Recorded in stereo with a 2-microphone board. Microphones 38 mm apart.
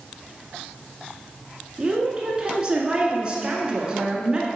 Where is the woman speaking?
20° right (ahead or behind), 1.4 m.